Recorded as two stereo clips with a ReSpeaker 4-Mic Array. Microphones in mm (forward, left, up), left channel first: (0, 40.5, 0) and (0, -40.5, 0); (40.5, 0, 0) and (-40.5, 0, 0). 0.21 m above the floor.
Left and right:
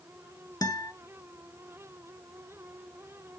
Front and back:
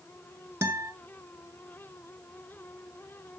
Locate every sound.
0.6 s a guitar: 130° left, 0.9 m